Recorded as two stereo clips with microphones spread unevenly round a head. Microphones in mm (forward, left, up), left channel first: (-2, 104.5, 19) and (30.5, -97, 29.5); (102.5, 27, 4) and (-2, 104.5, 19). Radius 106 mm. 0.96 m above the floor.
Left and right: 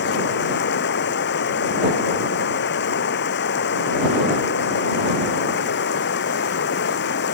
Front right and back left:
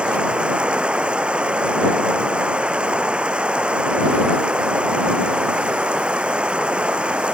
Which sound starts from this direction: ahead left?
Running water, at 0.0 s.